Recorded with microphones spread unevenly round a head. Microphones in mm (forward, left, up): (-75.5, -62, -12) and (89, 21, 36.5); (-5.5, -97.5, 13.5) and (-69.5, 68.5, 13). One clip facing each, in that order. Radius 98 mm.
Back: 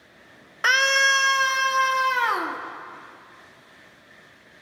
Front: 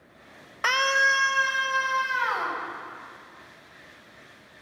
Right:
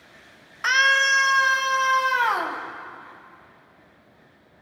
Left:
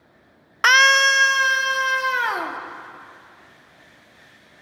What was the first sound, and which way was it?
A scream, 125° left.